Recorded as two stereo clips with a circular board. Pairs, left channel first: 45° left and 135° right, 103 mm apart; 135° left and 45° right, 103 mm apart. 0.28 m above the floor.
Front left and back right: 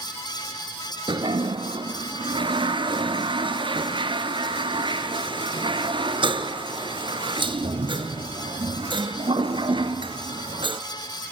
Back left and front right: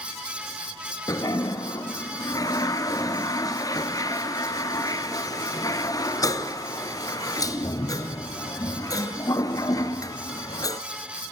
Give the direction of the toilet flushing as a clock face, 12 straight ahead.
6 o'clock.